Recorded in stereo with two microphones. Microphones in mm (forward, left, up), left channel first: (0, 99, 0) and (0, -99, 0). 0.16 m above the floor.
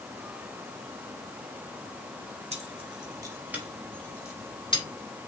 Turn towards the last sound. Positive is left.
turn(degrees=30)  # may be behind; listen again after turning